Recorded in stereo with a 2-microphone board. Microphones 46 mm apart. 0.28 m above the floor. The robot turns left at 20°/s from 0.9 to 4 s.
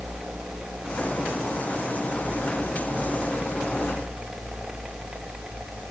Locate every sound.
Only background noise.